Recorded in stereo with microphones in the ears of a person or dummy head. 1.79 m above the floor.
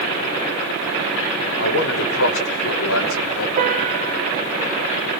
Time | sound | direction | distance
1.6 | a man speaking | 65° left (ahead or behind) | 6 m
3.6 | a piano | 40° right (ahead or behind) | 2.5 m